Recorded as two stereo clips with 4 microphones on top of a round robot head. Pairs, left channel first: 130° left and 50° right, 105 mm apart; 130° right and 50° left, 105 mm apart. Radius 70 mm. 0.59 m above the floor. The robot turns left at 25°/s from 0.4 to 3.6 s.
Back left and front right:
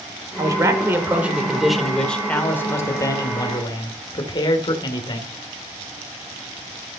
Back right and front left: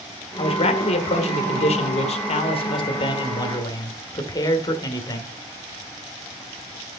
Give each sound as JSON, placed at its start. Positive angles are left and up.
{"t": 0.4, "sound": "a man speaking", "azimuth_deg": -105, "distance_m": 2.0}